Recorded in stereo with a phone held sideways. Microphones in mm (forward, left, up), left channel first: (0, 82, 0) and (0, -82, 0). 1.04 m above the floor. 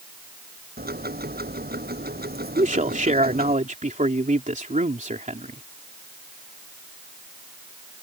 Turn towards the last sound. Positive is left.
turn(degrees=-50)  # may be behind; listen again after turning